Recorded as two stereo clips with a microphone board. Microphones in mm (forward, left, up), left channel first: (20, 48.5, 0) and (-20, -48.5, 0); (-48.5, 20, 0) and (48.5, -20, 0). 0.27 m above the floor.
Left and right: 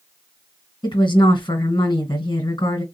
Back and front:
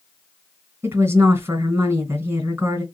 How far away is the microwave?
I don't hear a microwave.